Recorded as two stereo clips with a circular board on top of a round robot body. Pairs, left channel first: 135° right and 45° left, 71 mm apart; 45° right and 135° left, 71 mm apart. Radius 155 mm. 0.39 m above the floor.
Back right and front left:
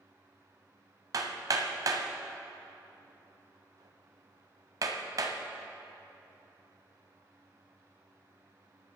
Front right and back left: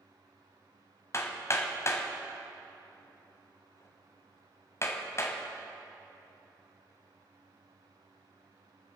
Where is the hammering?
5° left, 1.3 m.